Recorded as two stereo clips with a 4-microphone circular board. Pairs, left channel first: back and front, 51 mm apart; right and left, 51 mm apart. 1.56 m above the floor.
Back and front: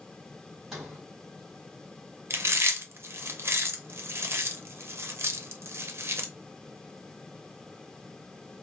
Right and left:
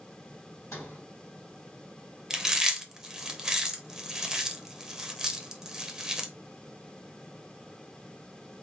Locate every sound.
0.7 s a sliding door: 80° right, 3 m
2.3 s chewing: 10° left, 0.7 m